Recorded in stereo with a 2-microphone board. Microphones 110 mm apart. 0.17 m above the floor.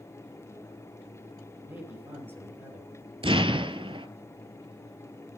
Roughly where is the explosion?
Right.